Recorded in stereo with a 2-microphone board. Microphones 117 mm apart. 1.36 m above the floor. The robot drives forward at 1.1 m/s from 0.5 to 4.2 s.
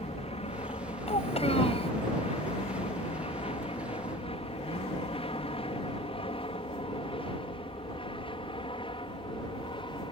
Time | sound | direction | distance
0.0 | an aircraft | 60° left (ahead or behind) | ?
1.1 | a child speaking | 65° left (ahead or behind) | ?